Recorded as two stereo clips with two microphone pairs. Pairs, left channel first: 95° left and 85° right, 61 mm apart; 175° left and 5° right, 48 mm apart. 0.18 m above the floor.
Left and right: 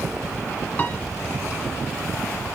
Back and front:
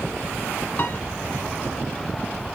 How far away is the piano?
About 1.3 m.